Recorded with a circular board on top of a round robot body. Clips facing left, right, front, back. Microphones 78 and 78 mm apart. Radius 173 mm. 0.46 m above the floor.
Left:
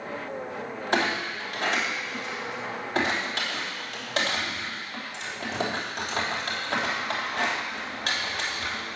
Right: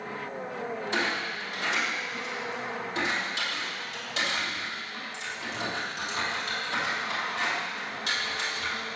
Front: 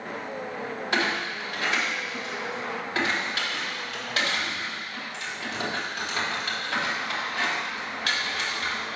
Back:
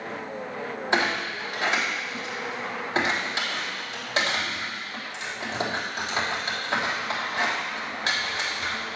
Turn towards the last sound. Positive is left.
turn(degrees=115)